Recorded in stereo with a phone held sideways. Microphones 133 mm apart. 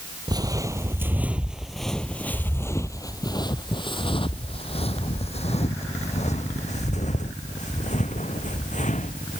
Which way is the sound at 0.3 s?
30° right (ahead or behind).